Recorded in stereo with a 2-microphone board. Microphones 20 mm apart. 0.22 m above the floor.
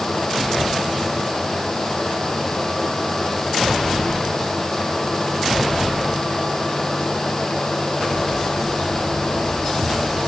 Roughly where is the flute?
No flute in this recording.